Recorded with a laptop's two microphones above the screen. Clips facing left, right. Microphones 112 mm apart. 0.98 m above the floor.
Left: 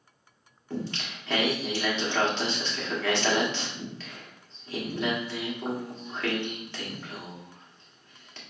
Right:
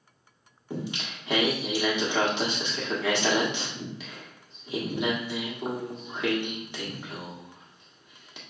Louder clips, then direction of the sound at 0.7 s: Even; 15° right (ahead or behind).